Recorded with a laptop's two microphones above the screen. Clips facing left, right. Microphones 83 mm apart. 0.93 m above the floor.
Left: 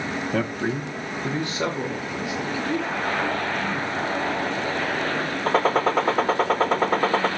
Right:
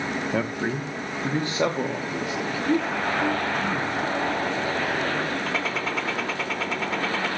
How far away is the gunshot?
About 0.7 m.